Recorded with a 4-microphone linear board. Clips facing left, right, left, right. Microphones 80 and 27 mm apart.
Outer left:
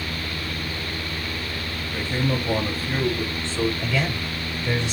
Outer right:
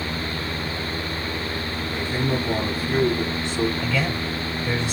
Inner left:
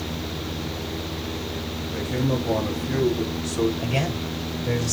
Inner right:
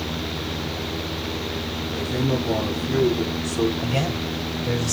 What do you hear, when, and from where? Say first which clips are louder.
1.9 s a man speaking: even, inner right 1 dB; 35° left (ahead or behind), 6 m
3.8 s a man speaking: outer right 1 dB, inner right 1 dB; 25° left (ahead or behind), 6.5 m